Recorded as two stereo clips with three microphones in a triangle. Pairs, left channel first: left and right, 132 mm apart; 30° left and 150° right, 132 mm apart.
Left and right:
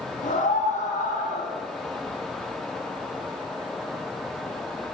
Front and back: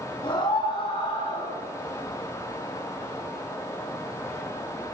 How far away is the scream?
About 6.5 m.